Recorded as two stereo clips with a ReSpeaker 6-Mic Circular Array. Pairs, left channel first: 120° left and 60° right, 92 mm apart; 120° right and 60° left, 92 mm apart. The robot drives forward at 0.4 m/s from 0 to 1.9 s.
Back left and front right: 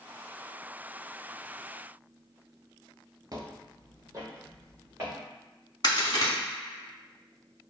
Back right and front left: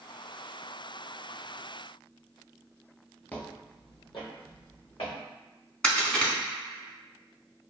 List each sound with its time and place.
3.3 s footsteps: 55° right, 0.5 m; by 5.2 s 120° right, 2 m
5.8 s a crack: 160° left, 1.0 m